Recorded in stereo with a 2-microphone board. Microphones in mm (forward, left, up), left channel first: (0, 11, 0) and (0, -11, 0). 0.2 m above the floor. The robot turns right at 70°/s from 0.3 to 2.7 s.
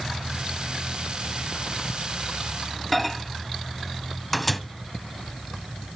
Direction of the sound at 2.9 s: Centre (ahead or behind).